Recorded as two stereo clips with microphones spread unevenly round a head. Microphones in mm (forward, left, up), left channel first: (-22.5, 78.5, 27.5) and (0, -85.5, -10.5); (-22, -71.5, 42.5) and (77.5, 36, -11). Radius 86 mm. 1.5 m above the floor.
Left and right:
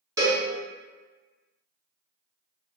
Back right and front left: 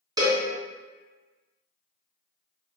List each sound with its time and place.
0.2 s a cowbell: 15° right, 1.1 m